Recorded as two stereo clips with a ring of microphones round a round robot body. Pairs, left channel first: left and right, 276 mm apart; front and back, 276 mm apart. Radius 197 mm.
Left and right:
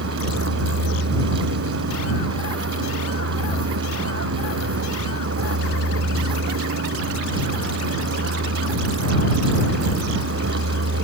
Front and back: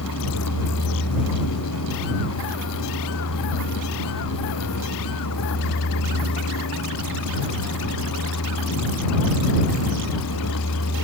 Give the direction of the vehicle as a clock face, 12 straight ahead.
2 o'clock.